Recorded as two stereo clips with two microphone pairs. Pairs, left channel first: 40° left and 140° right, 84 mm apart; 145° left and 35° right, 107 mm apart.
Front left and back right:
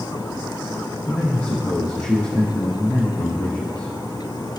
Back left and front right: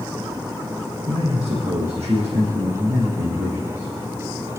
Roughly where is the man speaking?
Ahead right.